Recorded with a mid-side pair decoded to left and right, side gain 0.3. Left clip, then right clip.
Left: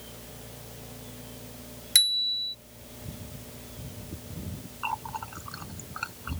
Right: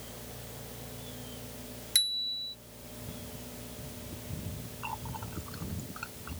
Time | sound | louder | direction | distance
1.9 | a bicycle bell | left 6 dB | 60° left | ?
4.8 | a running tap | left 7 dB | 70° left | ?